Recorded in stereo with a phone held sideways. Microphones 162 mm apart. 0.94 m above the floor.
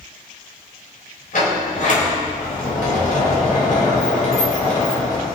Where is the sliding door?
60° left (ahead or behind), 3.5 m.